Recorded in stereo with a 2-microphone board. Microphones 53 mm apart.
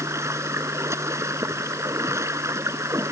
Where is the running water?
65° right (ahead or behind).